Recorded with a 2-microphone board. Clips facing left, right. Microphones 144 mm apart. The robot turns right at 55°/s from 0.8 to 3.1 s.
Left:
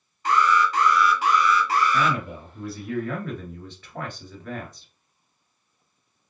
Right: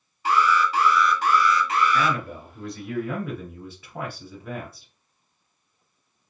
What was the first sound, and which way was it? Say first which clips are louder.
An alarm: even; 10° right.